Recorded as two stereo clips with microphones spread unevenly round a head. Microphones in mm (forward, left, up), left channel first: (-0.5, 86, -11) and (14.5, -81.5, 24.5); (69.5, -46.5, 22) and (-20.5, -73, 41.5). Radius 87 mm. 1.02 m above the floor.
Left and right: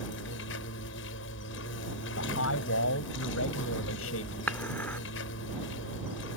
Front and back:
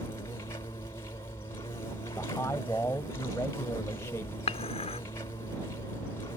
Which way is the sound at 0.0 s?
85° left.